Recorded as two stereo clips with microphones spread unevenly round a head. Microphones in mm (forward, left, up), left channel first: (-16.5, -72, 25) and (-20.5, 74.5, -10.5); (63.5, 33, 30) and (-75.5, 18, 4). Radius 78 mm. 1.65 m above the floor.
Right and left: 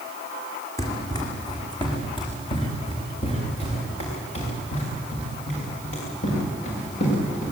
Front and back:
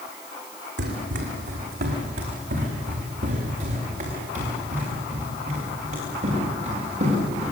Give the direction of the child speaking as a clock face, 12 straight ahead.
I don't hear a child speaking.